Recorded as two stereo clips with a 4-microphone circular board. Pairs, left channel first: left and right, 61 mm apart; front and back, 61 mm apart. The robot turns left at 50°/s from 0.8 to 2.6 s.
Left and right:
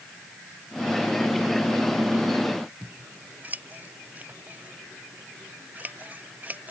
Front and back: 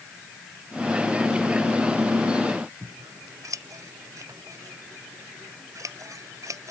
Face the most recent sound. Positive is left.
turn(degrees=-155)